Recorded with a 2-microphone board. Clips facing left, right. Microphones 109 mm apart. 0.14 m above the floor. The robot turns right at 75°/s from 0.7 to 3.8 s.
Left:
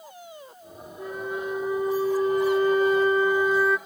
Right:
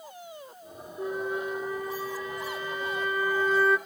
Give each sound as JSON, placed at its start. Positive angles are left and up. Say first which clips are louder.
{"t": 1.0, "sound": "a flute", "louder": "right 1 dB", "azimuth_deg": -25, "distance_m": 0.9}